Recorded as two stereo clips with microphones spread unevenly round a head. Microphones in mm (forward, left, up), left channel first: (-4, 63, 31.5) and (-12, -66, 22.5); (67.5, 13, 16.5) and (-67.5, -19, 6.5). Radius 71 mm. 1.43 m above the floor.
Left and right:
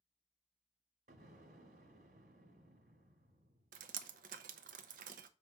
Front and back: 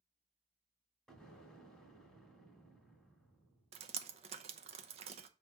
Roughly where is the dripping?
Behind right.